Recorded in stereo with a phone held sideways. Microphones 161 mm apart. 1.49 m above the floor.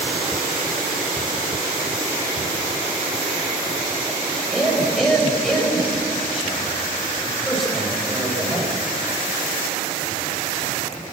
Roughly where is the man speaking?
Centre.